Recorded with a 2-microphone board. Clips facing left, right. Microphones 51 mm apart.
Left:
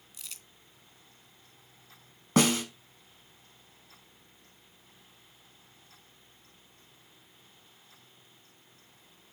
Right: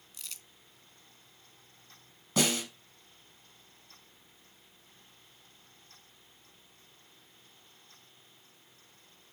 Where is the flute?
I don't hear a flute.